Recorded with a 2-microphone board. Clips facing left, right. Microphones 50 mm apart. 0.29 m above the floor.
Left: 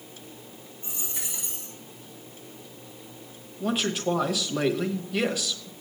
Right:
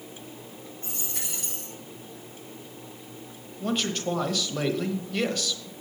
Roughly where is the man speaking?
Centre.